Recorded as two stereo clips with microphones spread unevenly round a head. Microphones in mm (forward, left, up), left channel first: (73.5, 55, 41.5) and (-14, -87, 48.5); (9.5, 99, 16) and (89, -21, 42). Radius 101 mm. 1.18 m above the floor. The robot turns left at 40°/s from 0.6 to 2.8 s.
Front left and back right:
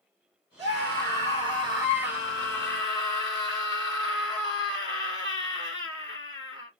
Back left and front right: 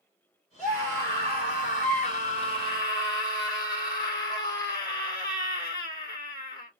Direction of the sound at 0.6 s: 145° right.